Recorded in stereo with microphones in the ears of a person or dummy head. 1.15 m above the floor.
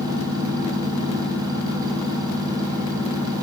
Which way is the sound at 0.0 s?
25° right (ahead or behind).